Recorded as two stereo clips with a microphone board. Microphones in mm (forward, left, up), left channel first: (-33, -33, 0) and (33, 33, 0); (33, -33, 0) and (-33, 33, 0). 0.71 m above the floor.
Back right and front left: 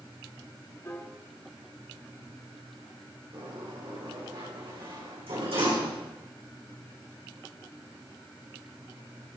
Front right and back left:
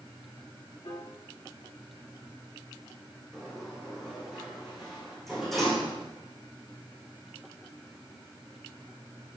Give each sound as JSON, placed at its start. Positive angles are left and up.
{"t": 0.8, "sound": "a piano", "azimuth_deg": -75, "distance_m": 5.0}
{"t": 3.3, "sound": "a sliding door", "azimuth_deg": 45, "distance_m": 8.5}